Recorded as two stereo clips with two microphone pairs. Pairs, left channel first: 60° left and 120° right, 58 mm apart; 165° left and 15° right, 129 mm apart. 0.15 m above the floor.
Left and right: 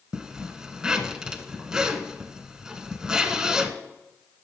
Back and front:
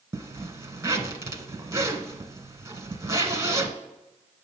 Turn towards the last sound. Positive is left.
turn(degrees=-55)